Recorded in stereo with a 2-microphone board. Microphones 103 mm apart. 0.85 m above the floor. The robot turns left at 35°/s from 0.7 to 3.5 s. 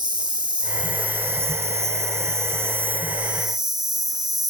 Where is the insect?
45° right; by 4.5 s 145° right.